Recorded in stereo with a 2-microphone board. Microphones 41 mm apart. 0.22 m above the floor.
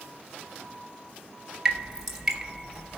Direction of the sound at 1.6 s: 10° right (ahead or behind).